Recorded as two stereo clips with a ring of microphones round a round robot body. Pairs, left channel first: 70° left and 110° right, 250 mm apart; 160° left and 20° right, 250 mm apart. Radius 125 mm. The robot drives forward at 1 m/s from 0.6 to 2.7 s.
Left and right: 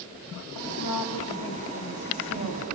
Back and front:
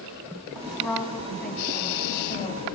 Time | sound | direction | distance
0.6 | a woman speaking | 65° left | 5 m